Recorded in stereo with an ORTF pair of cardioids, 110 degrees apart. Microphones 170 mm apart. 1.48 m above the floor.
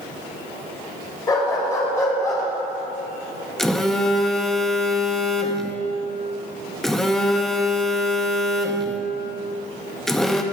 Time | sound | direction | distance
1.3 | a dog barking | 25° left | 3 m
3.6 | a phone buzzing | straight ahead | 0.8 m